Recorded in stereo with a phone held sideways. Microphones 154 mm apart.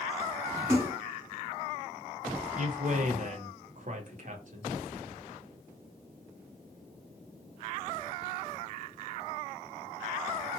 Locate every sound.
0.7 s a splash: 15° right (ahead or behind), 1.0 m
2.6 s a man speaking: 55° right (ahead or behind), 0.9 m